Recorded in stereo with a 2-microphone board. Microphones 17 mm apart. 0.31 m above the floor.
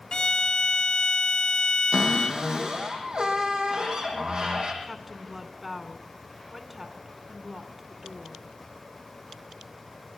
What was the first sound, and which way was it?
A violin, 55° left (ahead or behind).